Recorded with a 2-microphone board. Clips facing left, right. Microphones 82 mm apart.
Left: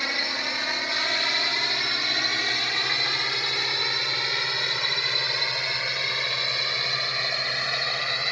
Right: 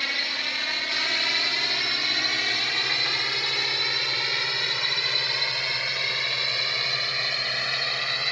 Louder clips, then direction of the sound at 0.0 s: Left 2 dB; 20° left (ahead or behind).